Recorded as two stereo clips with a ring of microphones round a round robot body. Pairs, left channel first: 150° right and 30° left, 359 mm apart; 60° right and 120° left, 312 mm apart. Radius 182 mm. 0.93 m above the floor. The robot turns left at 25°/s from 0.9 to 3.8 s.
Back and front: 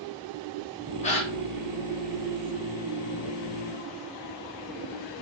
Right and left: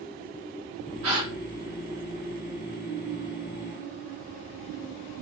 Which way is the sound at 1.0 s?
145° left.